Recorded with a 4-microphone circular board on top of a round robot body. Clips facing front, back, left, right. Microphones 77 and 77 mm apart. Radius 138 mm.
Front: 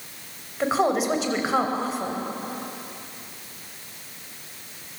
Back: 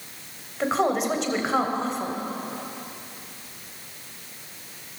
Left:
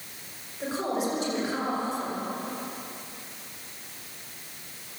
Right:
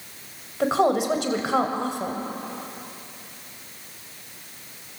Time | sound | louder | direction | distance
0.6 | a woman speaking | front 1 dB, right 8 dB | 85° right | 3.5 m